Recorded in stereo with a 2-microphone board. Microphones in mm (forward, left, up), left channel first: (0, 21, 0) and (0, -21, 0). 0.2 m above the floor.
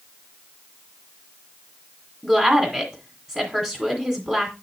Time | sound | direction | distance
2.2 | a woman speaking | 15° right (ahead or behind) | 2.0 m